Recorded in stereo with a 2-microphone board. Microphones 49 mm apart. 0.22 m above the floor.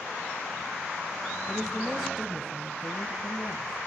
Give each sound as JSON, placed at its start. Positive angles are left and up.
{"t": 1.5, "sound": "a woman speaking", "side_deg": -25, "distance_m": 1.3}